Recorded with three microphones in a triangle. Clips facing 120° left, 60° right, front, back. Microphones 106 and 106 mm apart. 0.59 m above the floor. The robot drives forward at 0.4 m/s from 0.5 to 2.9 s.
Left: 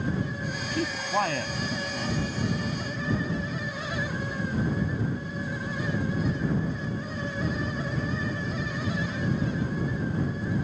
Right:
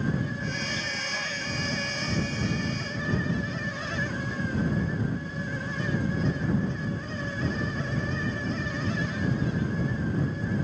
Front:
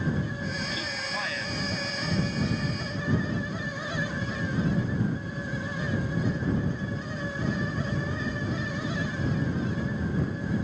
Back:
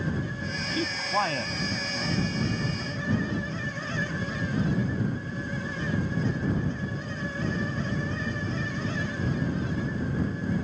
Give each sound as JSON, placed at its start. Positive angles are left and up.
{"t": 0.7, "sound": "a man speaking", "azimuth_deg": 135}